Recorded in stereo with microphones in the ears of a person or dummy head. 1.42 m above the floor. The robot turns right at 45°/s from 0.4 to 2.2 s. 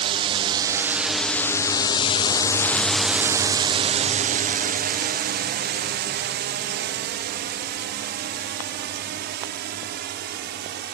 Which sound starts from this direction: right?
A drone, at 0.0 s.